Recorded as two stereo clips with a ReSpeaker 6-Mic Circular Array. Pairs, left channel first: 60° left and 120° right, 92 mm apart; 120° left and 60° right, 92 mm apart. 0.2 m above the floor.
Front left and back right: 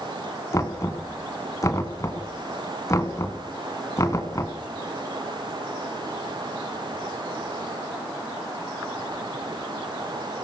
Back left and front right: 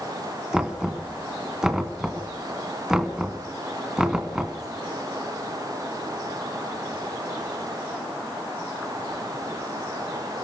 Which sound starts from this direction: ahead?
Knocking, at 0.5 s.